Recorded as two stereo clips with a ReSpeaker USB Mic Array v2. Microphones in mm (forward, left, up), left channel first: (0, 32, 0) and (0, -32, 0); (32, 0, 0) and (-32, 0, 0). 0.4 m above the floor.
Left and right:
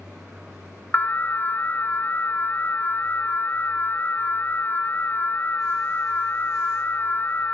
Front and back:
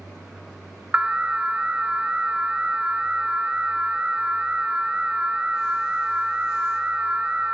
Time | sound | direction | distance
0.9 | an alarm | 125° left | 1.1 m